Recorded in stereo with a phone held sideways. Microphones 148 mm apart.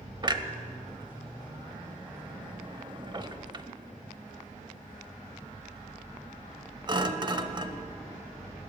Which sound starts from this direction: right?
A clunk, at 0.2 s.